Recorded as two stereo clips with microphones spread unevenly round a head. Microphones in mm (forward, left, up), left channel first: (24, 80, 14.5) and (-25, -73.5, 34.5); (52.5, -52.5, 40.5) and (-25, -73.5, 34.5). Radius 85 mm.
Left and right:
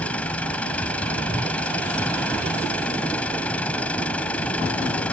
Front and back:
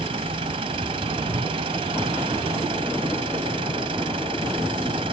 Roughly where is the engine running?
Behind left.